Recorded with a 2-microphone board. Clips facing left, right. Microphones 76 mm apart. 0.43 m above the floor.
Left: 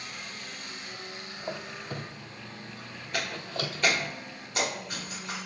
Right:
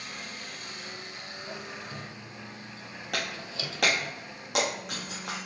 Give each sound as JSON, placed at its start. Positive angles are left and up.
{"t": 1.4, "sound": "a squeak", "side_deg": 50, "distance_m": 0.7}
{"t": 3.1, "sound": "breaking glass", "side_deg": -85, "distance_m": 3.0}